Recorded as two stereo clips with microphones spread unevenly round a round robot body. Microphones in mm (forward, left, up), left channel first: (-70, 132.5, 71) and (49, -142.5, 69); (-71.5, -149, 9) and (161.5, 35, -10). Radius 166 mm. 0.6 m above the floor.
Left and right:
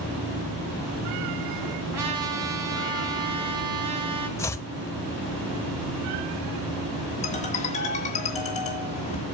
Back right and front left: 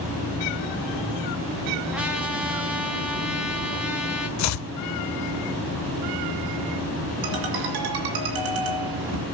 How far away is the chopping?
About 0.5 m.